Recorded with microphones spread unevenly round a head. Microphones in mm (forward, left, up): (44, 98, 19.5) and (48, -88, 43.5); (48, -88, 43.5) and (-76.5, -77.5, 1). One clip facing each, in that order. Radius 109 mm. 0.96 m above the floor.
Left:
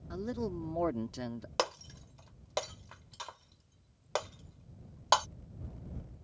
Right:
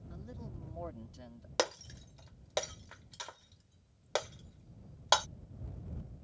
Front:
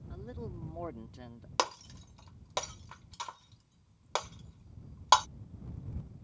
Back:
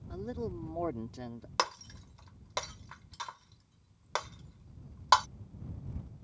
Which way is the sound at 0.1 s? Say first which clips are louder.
Left 14 dB, back 7 dB; 115° left.